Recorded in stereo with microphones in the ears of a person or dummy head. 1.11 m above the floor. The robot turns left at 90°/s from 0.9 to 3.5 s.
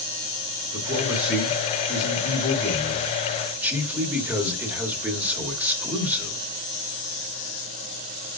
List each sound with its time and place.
0.7 s a man speaking: 145° right, 2.5 m; by 6.4 s 15° right, 2.5 m